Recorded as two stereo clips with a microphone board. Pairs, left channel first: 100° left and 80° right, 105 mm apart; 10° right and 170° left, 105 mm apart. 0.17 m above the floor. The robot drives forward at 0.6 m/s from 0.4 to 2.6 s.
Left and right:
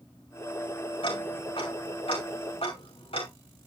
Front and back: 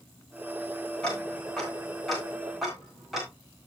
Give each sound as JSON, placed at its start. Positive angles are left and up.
{"t": 1.0, "sound": "ticking", "azimuth_deg": 70, "distance_m": 5.5}